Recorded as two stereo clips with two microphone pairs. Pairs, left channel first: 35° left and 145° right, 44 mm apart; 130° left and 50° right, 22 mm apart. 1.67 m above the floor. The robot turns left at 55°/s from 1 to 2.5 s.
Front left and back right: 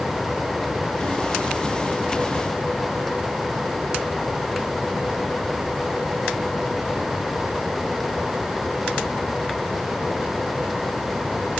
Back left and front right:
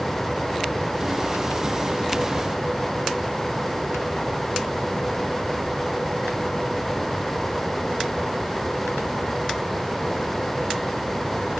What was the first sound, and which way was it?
Only background noise.